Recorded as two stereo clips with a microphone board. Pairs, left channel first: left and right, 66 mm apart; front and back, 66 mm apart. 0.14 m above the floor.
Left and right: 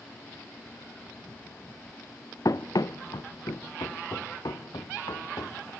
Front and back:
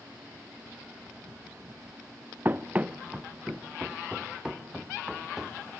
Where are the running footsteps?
120° left, 0.7 m; by 5.7 s 95° left, 2.5 m.